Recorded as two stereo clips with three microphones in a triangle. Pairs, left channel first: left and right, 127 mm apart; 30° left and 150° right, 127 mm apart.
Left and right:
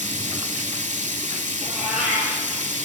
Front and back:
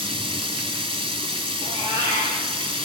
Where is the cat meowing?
85° right, 3.5 m.